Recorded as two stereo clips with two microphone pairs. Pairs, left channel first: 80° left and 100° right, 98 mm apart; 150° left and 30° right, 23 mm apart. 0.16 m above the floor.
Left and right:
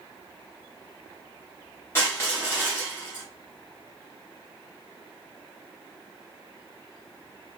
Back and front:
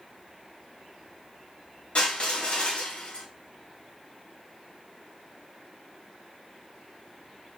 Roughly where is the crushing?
Behind left.